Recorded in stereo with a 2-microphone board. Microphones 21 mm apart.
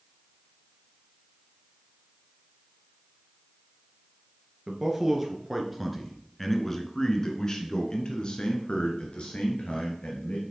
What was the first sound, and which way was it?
A man speaking, 15° right (ahead or behind).